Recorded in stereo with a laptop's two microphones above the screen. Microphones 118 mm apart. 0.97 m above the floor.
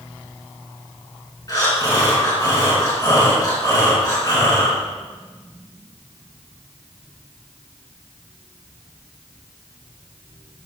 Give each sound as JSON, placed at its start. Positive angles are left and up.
{"t": 1.5, "sound": "breathing", "side_deg": 30, "distance_m": 2.5}